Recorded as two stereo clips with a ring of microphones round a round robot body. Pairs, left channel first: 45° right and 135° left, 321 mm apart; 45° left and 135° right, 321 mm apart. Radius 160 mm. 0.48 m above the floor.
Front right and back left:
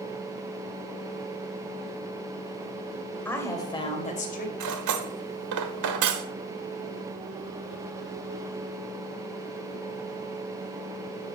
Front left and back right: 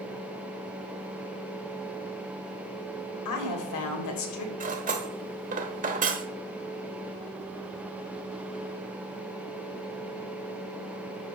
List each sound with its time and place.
3.2 s a woman speaking: 40° left, 2.5 m; by 4.5 s 15° left, 2.5 m
4.6 s cutlery clinking: 160° left, 1.2 m